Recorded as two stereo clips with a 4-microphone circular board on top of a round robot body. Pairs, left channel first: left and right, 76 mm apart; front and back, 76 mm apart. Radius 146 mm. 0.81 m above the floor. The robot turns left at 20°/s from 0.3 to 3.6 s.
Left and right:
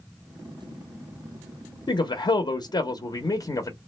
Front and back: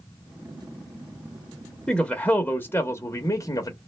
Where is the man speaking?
85° left, 0.8 m; by 3.8 s 50° left, 0.8 m.